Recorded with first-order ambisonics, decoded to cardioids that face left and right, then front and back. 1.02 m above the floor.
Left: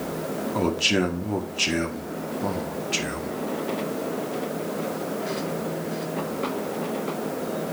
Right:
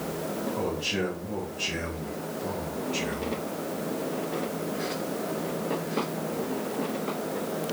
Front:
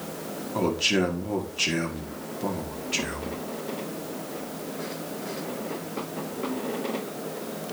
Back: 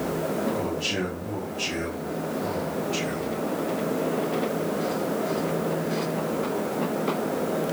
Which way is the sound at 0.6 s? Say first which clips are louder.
Left 8 dB, front 3 dB; 65° left.